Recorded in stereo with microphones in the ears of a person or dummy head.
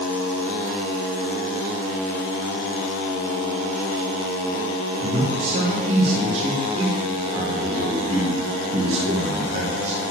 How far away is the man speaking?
About 1.6 m.